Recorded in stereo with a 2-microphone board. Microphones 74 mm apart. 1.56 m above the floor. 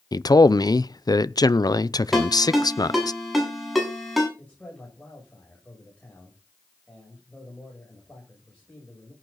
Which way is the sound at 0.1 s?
60° left (ahead or behind).